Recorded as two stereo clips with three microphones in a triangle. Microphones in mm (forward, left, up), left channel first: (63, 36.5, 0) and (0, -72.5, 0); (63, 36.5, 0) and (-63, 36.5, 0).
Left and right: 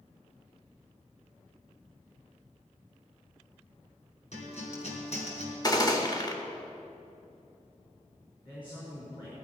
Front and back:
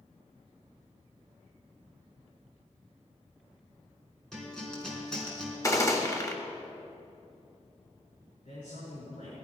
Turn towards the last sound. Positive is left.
turn(degrees=10)